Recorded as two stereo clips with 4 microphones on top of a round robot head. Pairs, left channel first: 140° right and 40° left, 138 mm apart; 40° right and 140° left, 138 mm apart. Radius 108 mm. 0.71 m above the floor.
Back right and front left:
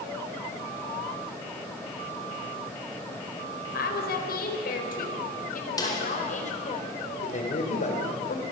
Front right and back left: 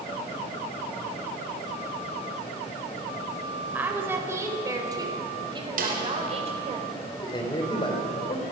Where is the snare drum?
155° left, 4 m.